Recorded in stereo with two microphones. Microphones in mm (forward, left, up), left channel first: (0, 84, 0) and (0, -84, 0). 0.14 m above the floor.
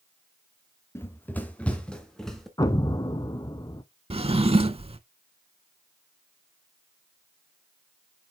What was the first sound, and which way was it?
Running footsteps, 15° left (ahead or behind).